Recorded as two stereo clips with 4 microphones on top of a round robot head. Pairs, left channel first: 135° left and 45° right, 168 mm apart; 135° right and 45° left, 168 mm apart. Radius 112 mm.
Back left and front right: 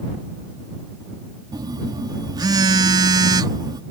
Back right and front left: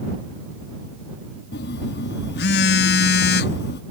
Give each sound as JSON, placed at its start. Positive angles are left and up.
{"t": 1.5, "sound": "a phone buzzing", "azimuth_deg": -115}